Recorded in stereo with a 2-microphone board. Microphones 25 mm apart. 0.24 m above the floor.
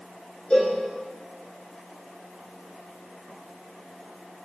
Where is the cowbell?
35° left (ahead or behind), 1.4 m.